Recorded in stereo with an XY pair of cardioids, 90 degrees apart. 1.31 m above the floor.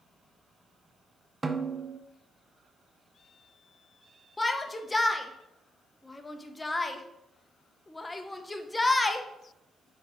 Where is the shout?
15° left, 0.9 m.